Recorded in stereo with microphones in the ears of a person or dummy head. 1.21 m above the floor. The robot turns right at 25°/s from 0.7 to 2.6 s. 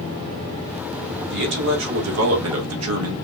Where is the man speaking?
120° right, 2.0 m; by 3.1 s 90° right, 2.0 m.